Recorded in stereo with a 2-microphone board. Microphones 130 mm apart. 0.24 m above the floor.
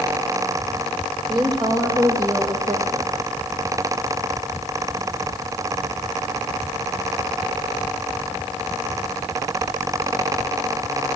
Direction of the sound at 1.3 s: 35° right (ahead or behind).